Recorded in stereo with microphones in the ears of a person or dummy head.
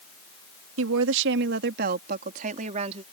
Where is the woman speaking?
75° right (ahead or behind); by 3.0 s 25° right (ahead or behind).